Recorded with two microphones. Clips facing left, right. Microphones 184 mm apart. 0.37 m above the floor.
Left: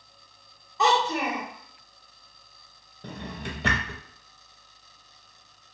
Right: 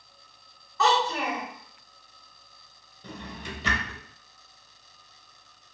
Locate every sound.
0.8 s a child speaking: 20° left (ahead or behind), 0.8 m
3.0 s a drawer: 60° left (ahead or behind), 0.5 m